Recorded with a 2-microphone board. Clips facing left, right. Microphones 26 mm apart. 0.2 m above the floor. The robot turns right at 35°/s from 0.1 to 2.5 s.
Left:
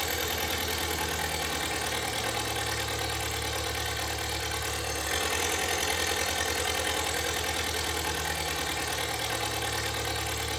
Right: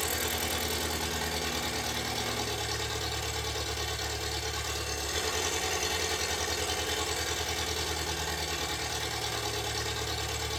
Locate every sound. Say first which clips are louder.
0.0 s an engine running: left 2 dB; 30° left, 8 m; by 10.6 s 115° left, 8 m